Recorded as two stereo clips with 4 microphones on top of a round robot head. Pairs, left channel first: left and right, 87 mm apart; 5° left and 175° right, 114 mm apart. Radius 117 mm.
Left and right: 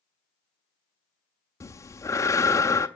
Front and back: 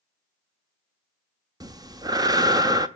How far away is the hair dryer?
No hair dryer in this recording.